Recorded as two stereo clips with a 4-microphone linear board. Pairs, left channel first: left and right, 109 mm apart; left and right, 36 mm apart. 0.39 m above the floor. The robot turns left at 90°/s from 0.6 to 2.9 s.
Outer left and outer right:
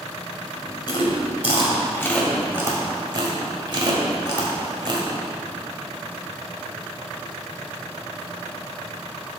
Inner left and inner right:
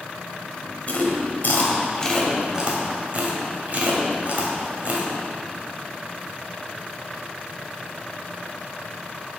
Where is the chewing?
40° left (ahead or behind), 1.7 m; by 5.1 s 40° right (ahead or behind), 1.7 m.